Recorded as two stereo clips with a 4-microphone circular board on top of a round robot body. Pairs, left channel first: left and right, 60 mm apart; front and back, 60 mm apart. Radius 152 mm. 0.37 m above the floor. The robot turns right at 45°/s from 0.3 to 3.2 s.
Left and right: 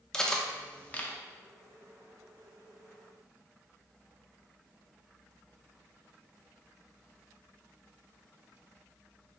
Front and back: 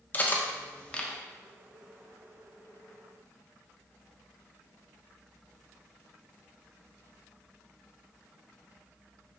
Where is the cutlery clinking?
20° left, 0.6 m; by 1.1 s 60° left, 0.6 m.